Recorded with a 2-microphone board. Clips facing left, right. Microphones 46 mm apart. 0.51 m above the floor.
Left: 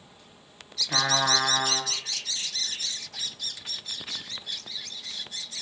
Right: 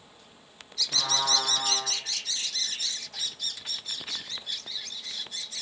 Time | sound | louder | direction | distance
0.9 | a trumpet | left 4 dB | 45° left (ahead or behind) | 3.5 m